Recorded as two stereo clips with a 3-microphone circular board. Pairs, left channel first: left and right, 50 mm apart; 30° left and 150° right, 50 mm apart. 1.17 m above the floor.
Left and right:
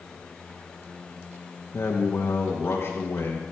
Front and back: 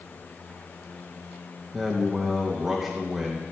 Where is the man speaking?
140° left, 1.4 m.